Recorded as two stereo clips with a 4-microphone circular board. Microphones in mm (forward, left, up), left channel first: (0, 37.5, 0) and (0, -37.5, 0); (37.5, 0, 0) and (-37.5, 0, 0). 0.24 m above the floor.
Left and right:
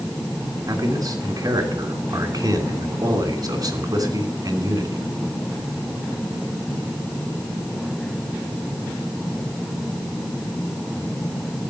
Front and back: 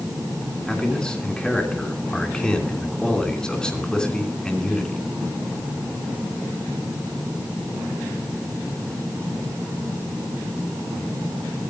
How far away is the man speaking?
About 3 m.